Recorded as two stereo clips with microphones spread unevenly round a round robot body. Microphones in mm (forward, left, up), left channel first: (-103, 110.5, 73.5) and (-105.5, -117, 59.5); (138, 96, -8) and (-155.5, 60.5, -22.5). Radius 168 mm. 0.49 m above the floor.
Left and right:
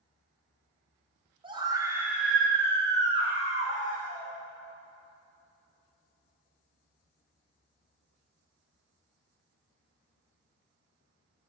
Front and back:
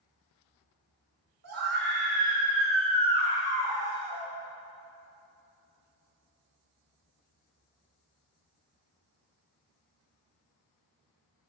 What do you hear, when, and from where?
1.4 s a scream: 150° right, 1.9 m; by 4.3 s 130° left, 2 m